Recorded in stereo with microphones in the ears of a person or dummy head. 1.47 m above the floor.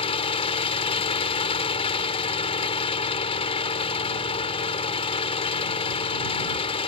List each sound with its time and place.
0.0 s an engine running: 30° left (ahead or behind)